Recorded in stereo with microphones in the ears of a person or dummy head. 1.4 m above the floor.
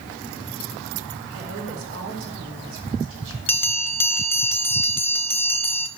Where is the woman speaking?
70° right (ahead or behind), 4 m.